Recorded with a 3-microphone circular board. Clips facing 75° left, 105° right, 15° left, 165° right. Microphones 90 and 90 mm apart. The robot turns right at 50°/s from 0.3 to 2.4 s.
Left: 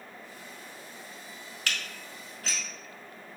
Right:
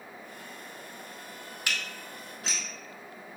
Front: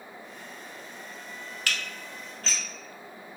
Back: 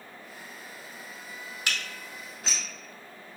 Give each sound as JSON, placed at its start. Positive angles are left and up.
{"t": 1.7, "sound": "dishes clattering", "azimuth_deg": -145, "distance_m": 0.8}